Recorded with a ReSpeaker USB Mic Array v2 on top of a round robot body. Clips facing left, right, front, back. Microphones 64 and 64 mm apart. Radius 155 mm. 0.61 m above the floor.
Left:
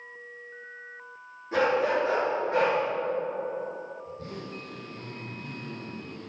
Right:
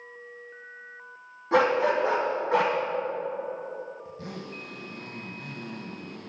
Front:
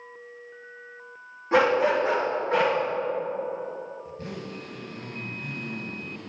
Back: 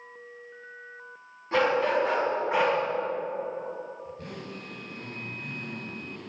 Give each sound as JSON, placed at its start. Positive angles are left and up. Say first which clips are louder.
{"t": 1.5, "sound": "a dog barking", "louder": "right 2 dB, front 3 dB", "azimuth_deg": -70, "distance_m": 1.7}
{"t": 4.0, "sound": "a zipper", "louder": "even, front 3 dB", "azimuth_deg": -90, "distance_m": 1.2}